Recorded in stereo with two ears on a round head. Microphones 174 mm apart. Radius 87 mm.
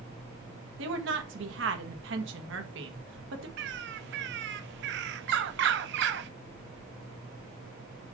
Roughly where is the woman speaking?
Right.